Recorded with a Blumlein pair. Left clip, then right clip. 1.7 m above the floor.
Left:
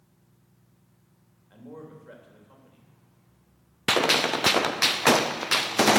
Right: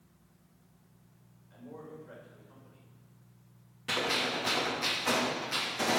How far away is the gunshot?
About 0.7 m.